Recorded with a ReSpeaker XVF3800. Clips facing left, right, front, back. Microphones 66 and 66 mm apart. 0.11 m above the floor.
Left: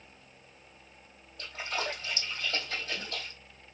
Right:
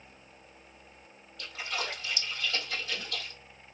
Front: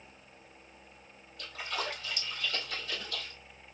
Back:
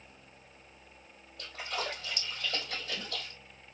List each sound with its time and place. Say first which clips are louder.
1.4 s a splash: left 1 dB, even; 145° left, 2.5 m